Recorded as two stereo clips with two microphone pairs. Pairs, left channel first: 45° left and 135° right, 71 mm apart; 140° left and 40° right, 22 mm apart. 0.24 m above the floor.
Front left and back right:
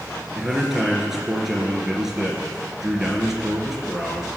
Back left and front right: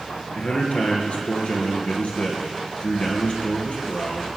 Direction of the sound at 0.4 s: 140° left.